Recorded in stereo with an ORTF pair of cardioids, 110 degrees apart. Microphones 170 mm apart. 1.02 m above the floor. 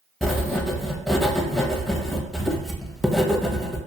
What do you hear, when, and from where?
0.2 s writing: 5° left, 0.5 m